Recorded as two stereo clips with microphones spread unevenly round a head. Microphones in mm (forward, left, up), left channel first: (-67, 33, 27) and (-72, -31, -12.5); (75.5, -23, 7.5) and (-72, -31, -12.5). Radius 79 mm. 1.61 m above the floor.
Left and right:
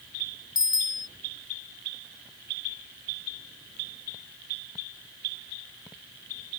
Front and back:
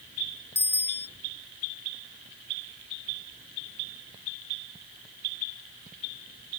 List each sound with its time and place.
0.6 s a bicycle bell: 80° left